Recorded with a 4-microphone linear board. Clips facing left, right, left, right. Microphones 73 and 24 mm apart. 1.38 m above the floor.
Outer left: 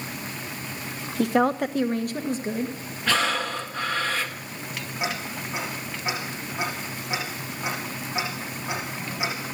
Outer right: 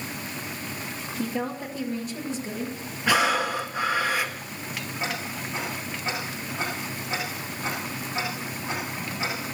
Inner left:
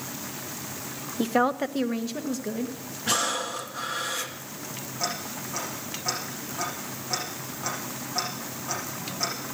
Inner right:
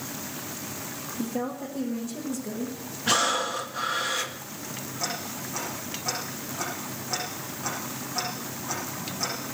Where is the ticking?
15° left (ahead or behind), 9.5 m.